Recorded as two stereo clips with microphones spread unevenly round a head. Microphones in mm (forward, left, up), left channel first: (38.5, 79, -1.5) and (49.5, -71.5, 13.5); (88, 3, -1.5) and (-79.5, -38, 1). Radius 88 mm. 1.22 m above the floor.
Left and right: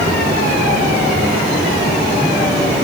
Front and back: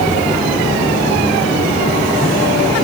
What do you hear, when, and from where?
Only background noise.